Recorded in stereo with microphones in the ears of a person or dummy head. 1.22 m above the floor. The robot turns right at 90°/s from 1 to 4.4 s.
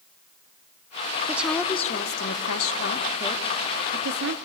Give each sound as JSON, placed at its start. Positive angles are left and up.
{"t": 1.3, "sound": "a woman speaking", "azimuth_deg": -20, "distance_m": 1.0}